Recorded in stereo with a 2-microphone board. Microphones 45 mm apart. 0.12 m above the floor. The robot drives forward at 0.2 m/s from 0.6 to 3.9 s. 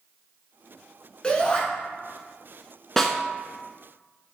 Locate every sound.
1.2 s a shout: 20° left (ahead or behind), 1.1 m
3.0 s a snare drum: 10° left (ahead or behind), 0.6 m